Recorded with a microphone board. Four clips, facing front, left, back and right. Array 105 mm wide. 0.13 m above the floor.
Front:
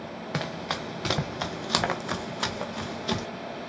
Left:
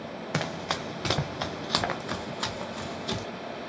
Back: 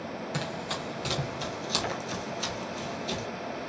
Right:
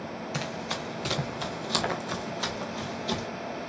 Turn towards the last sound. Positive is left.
turn(degrees=10)